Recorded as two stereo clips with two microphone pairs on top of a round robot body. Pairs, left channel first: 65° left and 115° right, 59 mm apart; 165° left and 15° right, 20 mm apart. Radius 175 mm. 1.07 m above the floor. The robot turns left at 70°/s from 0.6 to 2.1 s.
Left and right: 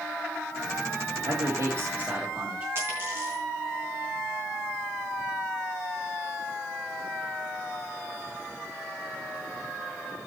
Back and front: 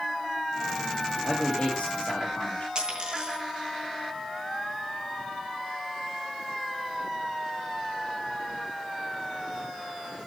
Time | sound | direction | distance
1.2 | a man speaking | 100° right | 2 m
2.8 | a dropped coin | 65° right | 3.5 m